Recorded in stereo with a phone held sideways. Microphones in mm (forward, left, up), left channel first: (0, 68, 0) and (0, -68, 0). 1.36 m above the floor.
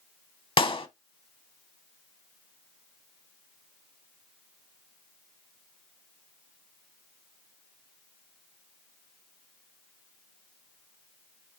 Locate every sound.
0.6 s a clap: 40° left (ahead or behind), 0.7 m